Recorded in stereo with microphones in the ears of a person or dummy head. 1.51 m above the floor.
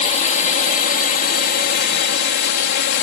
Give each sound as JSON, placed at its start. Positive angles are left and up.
{"t": 0.0, "sound": "a drone", "side_deg": 35}